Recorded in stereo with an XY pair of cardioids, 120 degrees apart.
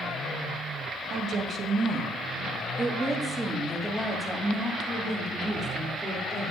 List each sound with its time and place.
1.1 s a woman speaking: 55° right, 1.6 m; by 6.5 s 25° left, 3 m